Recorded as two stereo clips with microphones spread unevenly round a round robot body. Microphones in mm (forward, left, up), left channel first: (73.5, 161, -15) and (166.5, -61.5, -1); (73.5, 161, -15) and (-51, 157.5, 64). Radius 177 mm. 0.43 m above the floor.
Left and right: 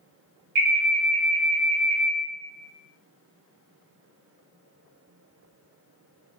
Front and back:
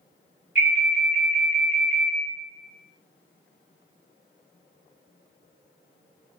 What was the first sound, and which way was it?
An alarm, 50° right.